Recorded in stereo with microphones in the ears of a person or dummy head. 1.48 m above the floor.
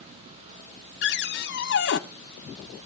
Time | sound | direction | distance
1.0 | a cupboard door | 50° left (ahead or behind) | 0.6 m